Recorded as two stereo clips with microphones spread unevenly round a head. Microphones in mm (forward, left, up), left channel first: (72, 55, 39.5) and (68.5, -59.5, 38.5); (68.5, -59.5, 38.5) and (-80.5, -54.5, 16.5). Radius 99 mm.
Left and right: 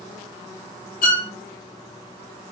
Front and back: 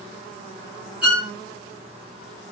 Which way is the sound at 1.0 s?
90° left.